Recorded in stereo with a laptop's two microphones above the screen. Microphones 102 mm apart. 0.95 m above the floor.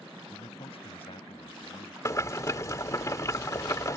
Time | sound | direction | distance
0.3 | a man speaking | 65° left (ahead or behind) | ?
2.0 | boiling | 35° left (ahead or behind) | ?